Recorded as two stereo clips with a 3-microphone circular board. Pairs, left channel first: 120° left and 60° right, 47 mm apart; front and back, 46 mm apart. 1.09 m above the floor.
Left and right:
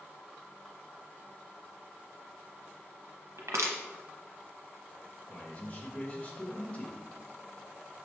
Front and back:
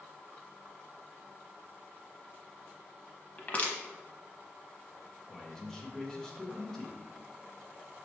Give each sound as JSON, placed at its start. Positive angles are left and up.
{"t": 3.4, "sound": "crushing", "azimuth_deg": -55, "distance_m": 0.7}
{"t": 5.3, "sound": "a man speaking", "azimuth_deg": 75, "distance_m": 1.1}